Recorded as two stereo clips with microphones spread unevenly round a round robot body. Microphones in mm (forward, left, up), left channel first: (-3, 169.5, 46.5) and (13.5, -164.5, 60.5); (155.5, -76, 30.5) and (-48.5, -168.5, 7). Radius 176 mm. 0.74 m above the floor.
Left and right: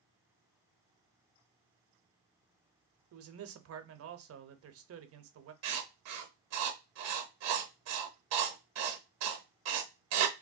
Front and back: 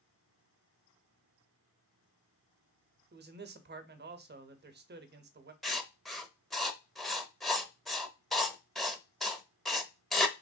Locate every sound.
3.1 s a man speaking: 130° right, 0.6 m
5.6 s writing: 60° right, 0.6 m